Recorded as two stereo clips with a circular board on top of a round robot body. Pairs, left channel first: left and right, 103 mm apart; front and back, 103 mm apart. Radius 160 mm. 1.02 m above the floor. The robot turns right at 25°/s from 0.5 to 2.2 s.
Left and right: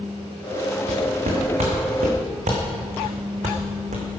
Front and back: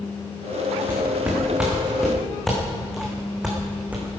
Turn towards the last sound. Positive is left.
turn(degrees=-100)